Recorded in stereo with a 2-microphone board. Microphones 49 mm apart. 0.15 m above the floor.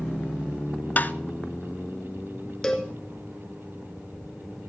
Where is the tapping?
40° left (ahead or behind), 0.7 m.